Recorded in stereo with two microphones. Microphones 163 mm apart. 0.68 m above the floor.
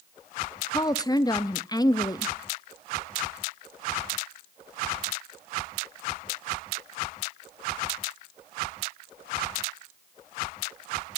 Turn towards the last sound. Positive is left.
turn(degrees=25)  # may be behind; listen again after turning